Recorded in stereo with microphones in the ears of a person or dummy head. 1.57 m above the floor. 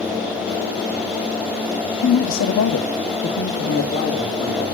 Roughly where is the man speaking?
Left.